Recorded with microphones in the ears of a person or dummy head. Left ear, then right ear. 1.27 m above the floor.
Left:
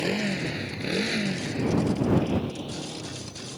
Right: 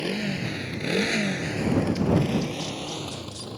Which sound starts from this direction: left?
A motorcycle, at 0.0 s.